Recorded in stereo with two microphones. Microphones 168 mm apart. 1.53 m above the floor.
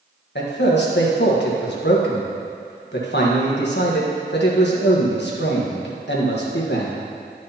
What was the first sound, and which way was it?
A man speaking, 80° left.